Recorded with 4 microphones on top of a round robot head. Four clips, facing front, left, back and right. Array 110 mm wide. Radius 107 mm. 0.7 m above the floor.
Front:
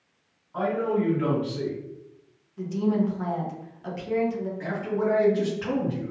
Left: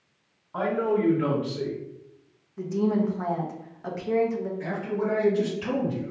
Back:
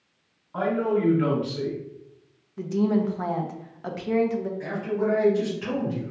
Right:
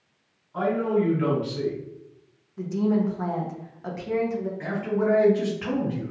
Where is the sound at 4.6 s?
60° right, 1.9 m.